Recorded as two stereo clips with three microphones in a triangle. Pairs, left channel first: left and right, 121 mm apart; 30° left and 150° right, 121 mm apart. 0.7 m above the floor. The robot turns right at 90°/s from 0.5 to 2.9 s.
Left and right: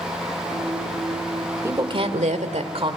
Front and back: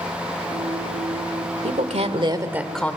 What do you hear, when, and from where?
1.6 s a woman speaking: 160° right, 1.8 m; by 3.0 s 45° right, 1.8 m